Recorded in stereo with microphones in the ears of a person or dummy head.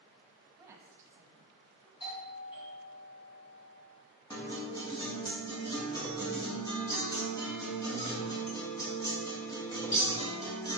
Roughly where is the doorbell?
Left.